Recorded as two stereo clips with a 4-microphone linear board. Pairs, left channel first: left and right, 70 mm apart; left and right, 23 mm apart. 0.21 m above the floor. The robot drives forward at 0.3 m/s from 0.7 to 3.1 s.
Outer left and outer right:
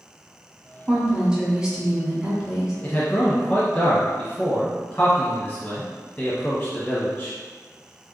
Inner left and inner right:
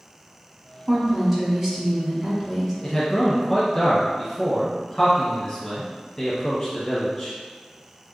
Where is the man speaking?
20° left (ahead or behind), 1.1 m.